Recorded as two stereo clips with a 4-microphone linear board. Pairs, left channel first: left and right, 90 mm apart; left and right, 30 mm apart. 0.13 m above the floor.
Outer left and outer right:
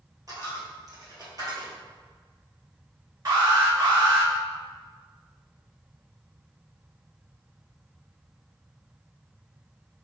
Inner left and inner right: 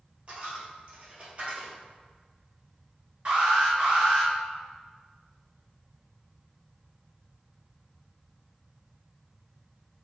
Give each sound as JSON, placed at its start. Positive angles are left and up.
{"t": 0.3, "sound": "a dropped coin", "side_deg": -45, "distance_m": 1.5}
{"t": 3.2, "sound": "an alarm", "side_deg": -45, "distance_m": 1.7}